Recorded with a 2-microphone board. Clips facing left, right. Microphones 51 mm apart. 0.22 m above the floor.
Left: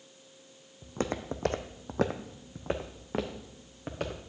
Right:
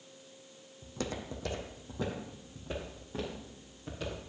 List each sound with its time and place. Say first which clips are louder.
0.8 s footsteps: left 5 dB; 30° left (ahead or behind), 0.8 m; by 4.2 s 55° left (ahead or behind), 1.8 m